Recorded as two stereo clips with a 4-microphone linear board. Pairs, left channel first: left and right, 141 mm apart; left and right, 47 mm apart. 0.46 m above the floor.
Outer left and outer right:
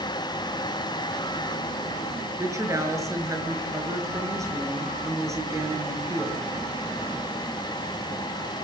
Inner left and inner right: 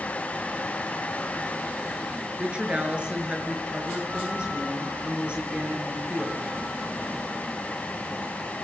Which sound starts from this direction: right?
A woman speaking, at 2.4 s.